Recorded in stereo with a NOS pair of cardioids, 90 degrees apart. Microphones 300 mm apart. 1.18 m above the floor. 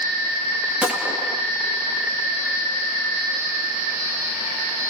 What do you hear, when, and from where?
0.8 s a gunshot: 5° right, 2 m